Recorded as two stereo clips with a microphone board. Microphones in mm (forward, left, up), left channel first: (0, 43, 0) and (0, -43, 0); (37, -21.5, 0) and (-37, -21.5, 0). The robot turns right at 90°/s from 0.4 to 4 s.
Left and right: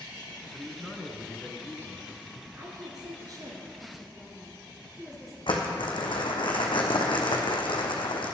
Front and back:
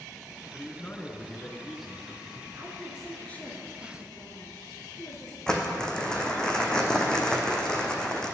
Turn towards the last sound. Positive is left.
turn(degrees=80)